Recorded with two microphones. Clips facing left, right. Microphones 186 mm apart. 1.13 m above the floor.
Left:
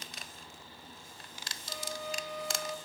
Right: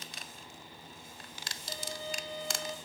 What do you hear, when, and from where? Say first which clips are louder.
1.7 s a violin: left 1 dB; 25° right (ahead or behind), 2 m